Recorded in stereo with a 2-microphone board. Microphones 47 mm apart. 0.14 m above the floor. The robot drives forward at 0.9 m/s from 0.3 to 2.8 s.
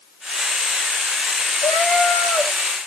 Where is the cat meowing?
75° left (ahead or behind), 1.3 m; by 2.5 s 60° left (ahead or behind), 1.5 m.